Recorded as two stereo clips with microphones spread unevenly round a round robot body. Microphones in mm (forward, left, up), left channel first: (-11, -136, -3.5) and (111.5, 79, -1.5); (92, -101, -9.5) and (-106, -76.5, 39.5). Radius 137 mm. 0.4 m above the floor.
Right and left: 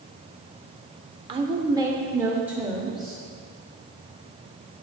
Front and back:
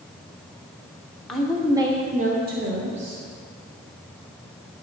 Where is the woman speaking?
35° left, 1.0 m; by 3.2 s 150° left, 1.4 m.